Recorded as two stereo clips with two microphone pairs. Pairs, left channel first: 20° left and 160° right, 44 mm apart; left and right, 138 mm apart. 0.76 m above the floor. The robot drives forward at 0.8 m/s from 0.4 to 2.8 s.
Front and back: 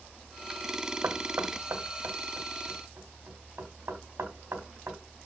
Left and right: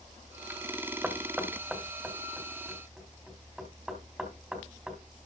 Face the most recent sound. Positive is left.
turn(degrees=-175)